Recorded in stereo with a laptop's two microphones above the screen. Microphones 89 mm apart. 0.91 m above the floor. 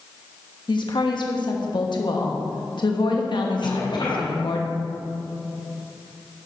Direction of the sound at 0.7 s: 65° left (ahead or behind).